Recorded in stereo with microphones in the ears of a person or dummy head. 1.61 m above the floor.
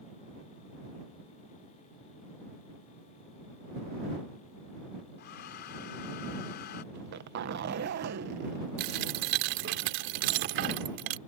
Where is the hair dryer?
50° left (ahead or behind).